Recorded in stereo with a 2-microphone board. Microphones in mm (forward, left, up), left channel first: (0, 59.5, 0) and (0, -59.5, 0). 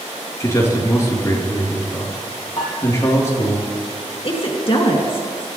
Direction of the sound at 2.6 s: 50° left (ahead or behind).